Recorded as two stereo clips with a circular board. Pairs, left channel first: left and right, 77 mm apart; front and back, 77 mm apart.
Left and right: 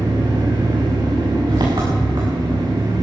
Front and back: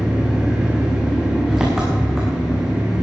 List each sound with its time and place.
0.0 s an engine running: 100° right, 5.5 m